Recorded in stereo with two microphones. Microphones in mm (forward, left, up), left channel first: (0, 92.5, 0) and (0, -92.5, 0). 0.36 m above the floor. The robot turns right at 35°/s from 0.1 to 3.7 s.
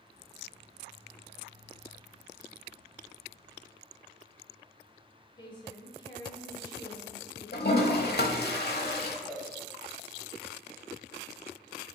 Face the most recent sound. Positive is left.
turn(degrees=0)  # may be behind; listen again after turning